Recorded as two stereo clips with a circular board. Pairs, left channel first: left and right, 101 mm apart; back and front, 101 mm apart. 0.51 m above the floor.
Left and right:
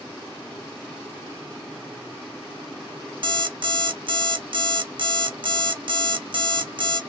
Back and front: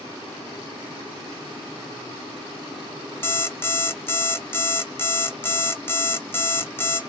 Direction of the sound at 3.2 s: 115° right.